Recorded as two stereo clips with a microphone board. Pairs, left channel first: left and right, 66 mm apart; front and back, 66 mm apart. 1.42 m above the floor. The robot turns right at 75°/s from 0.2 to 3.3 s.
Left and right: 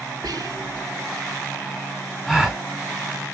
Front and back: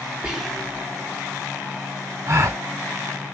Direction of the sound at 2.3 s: 175° left.